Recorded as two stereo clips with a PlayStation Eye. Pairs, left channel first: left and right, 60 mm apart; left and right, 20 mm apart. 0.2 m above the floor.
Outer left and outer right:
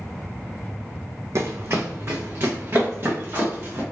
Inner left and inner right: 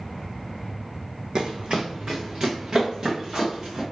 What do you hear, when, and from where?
1.4 s running footsteps: 55° right (ahead or behind), 0.6 m; by 3.8 s 40° right (ahead or behind), 2 m